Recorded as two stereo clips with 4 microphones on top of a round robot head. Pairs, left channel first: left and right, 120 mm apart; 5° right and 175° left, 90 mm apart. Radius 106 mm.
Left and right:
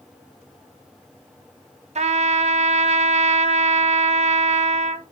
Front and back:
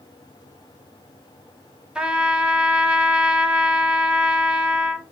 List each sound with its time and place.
1.9 s a trumpet: 105° right, 0.9 m